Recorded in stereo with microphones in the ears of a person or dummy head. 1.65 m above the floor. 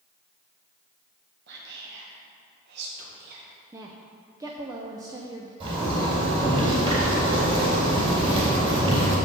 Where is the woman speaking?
15° right (ahead or behind), 0.6 m.